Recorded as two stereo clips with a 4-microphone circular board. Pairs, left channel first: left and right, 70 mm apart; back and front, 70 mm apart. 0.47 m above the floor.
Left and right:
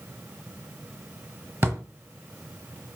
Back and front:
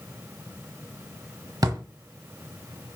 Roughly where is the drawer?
Ahead right.